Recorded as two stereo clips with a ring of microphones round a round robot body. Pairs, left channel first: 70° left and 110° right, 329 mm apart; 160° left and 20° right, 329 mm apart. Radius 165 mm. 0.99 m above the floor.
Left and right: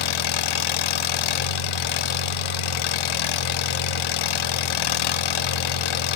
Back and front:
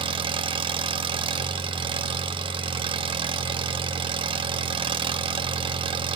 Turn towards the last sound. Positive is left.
turn(degrees=55)